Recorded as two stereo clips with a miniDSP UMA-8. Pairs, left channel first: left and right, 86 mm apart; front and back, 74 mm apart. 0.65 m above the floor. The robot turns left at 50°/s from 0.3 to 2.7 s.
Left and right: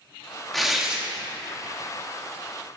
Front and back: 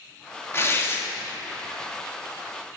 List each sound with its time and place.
0.5 s tearing paper: 5° left, 1.0 m; by 1.0 s 20° right, 1.0 m